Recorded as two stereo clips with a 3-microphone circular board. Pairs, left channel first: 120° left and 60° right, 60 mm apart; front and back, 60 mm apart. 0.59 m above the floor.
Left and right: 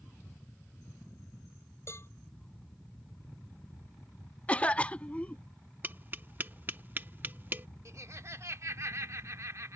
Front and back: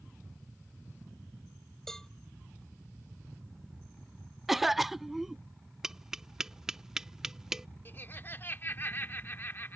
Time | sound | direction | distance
1.9 | a cowbell | 80° left | ?
4.5 | a cough | 100° left | ?
5.8 | tapping | 105° right | ?
7.8 | laughter | 45° right | ?